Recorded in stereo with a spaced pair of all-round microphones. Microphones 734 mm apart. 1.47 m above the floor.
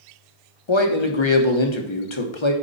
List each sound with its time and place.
0.7 s a man speaking: 40° left (ahead or behind), 1.1 m